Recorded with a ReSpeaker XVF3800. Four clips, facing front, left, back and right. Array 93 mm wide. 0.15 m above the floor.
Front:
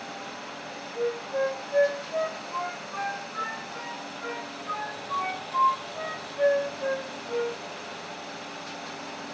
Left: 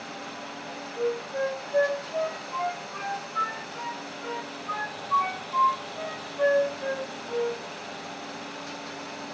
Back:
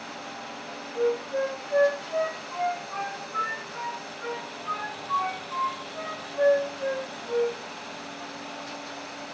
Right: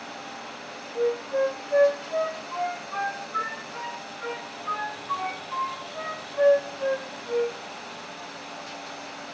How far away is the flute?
About 6 m.